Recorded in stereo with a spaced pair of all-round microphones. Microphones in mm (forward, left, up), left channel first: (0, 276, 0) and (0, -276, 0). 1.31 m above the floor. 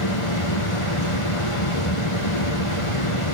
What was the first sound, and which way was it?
A fan, 65° left (ahead or behind).